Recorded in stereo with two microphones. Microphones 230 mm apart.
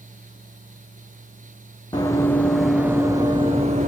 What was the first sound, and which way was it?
Running footsteps, 20° left (ahead or behind).